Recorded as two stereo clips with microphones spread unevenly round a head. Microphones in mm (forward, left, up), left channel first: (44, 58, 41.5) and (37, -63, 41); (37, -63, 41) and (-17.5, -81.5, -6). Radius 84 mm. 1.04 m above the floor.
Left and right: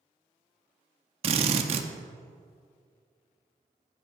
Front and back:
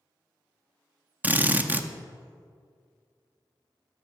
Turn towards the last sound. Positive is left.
turn(degrees=-70)